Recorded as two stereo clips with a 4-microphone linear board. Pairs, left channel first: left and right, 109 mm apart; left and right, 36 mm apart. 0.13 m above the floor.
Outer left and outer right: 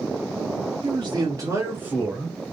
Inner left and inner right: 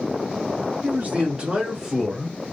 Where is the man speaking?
45° right (ahead or behind), 1.6 m; by 2.4 s centre (ahead or behind), 1.5 m.